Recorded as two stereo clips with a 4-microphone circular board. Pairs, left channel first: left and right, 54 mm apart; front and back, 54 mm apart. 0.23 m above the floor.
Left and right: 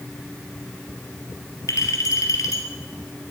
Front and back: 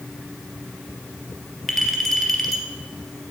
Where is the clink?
85° left, 3 m.